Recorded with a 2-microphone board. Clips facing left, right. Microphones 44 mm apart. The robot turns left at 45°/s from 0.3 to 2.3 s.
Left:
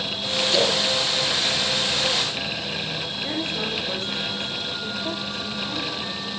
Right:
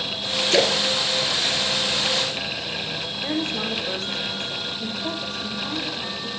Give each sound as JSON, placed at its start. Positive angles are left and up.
{"t": 0.5, "sound": "a splash", "side_deg": -50, "distance_m": 3.0}
{"t": 3.2, "sound": "a woman speaking", "side_deg": -80, "distance_m": 8.0}